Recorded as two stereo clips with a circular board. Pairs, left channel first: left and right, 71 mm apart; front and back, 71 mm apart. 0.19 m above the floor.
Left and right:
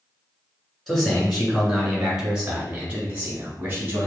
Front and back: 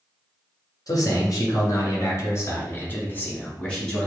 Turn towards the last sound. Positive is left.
turn(degrees=-90)